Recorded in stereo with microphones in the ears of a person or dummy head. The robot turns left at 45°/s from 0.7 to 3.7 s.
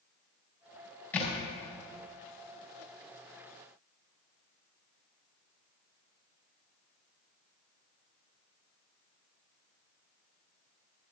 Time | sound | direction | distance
1.1 | a thud | 15° left (ahead or behind) | 4 m